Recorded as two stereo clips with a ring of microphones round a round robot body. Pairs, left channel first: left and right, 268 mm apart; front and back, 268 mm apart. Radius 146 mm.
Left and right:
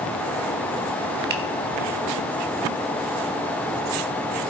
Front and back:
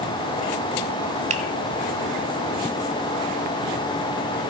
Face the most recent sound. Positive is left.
turn(degrees=-125)